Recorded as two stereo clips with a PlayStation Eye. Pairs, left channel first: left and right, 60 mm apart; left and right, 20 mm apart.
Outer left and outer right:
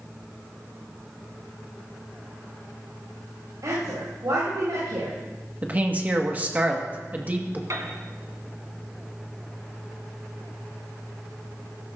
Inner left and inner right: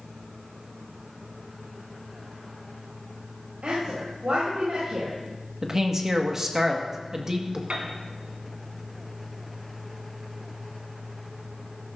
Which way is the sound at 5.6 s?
25° right (ahead or behind).